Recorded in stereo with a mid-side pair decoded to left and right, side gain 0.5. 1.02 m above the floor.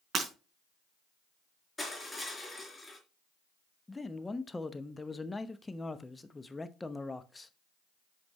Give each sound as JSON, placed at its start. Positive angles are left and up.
{"t": 0.1, "sound": "breaking glass", "azimuth_deg": -40, "distance_m": 4.0}
{"t": 1.8, "sound": "crushing", "azimuth_deg": 20, "distance_m": 3.5}
{"t": 3.9, "sound": "a man speaking", "azimuth_deg": 15, "distance_m": 0.9}